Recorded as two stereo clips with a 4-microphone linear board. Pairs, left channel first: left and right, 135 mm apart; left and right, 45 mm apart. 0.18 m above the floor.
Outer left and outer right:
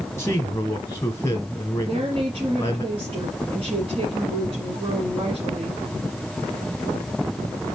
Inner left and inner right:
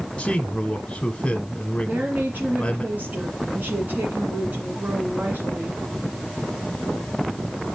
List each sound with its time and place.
0.2 s a man speaking: 25° left (ahead or behind), 1.1 m
1.8 s a woman speaking: 45° right (ahead or behind), 2 m